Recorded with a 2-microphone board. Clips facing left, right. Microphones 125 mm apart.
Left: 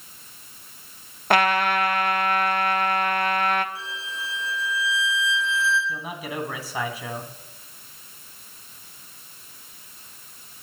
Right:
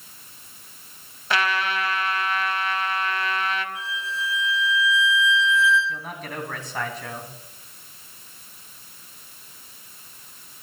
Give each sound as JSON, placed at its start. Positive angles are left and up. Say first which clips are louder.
{"t": 1.3, "sound": "a trumpet", "louder": "left 5 dB", "side_deg": 50, "distance_m": 0.7}
{"t": 3.8, "sound": "a violin", "louder": "right 4 dB", "side_deg": 35, "distance_m": 6.5}
{"t": 5.9, "sound": "a man speaking", "louder": "left 2 dB", "side_deg": 10, "distance_m": 2.5}